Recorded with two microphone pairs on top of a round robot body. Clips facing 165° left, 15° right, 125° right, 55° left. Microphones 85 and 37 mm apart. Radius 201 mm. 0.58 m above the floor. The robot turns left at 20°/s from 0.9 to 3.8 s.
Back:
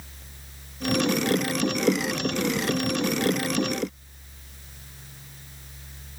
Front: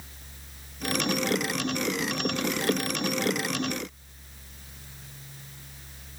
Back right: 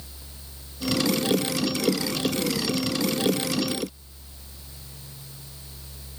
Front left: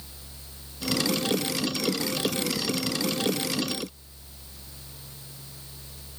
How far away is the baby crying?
No baby crying in this recording.